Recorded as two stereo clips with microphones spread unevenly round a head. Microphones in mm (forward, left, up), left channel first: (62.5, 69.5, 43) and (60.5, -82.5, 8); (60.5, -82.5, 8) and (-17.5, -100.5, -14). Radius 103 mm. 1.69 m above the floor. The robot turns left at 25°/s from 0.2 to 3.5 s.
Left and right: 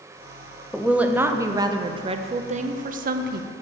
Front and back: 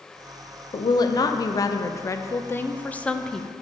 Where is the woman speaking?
Straight ahead, 0.6 m; by 3.5 s 65° right, 0.6 m.